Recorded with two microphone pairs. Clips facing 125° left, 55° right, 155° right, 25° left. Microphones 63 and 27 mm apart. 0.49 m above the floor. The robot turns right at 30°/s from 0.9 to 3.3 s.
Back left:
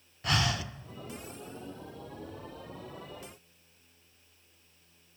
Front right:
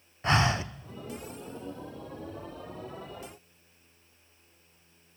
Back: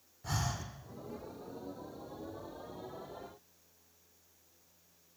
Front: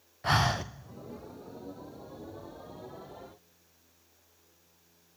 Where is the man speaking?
I don't hear a man speaking.